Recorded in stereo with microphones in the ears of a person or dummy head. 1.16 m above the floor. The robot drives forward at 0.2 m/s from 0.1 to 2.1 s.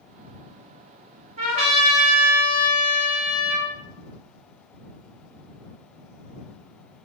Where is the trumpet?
45° right (ahead or behind), 1.1 m; by 3.7 s 40° right (ahead or behind), 1.2 m.